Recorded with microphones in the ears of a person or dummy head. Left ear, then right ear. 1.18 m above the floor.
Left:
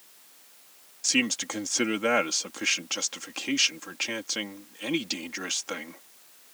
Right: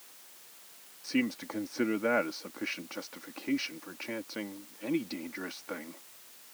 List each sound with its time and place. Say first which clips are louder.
1.0 s a man speaking: left 7 dB; 65° left (ahead or behind)